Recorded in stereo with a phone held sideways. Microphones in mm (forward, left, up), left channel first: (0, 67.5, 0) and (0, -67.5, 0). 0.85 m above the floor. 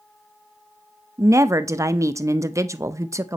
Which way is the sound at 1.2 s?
20° right (ahead or behind).